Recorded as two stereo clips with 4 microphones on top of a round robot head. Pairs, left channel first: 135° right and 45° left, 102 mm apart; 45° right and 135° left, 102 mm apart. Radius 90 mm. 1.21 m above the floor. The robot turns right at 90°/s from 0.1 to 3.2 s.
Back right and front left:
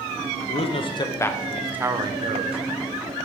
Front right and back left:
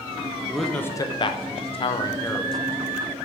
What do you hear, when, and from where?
0.5 s a man speaking: 140° right, 0.8 m; by 2.6 s 50° left, 0.8 m